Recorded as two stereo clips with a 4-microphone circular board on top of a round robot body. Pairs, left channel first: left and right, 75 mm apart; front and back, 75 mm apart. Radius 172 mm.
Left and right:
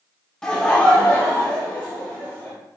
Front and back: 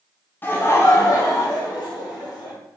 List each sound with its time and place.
0.4 s laughter: 20° left, 0.9 m